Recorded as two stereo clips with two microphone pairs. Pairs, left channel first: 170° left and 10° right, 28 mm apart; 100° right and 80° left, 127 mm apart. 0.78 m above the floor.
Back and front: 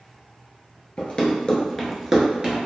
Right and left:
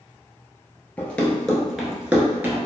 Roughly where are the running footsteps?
Behind.